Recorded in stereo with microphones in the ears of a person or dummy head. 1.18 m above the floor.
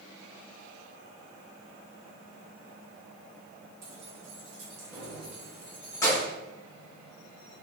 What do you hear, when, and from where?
3.8 s keys jangling: 35° right (ahead or behind), 1.6 m; by 6.3 s 25° left (ahead or behind), 1.0 m